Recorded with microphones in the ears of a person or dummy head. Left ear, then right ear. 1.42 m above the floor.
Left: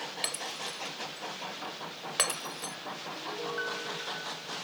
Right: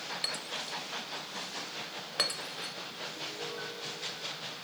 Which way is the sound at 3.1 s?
55° left (ahead or behind).